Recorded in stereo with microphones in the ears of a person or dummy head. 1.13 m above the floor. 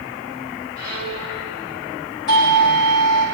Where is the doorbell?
65° left (ahead or behind), 9 m.